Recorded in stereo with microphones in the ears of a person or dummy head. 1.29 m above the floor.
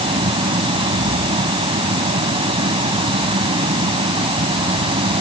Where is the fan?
25° right (ahead or behind).